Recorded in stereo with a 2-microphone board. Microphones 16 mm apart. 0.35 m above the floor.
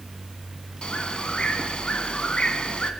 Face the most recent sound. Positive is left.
turn(degrees=65)  # may be behind; listen again after turning